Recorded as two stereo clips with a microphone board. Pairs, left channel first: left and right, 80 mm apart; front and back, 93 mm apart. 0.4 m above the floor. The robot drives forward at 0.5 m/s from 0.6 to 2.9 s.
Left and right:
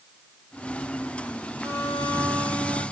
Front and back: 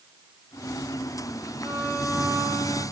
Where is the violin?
105° right, 8 m; by 2.8 s 110° right, 8 m.